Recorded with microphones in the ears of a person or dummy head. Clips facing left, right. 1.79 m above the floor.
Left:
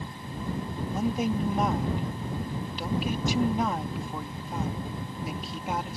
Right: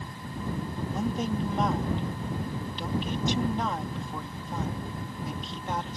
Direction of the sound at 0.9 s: 5° left (ahead or behind).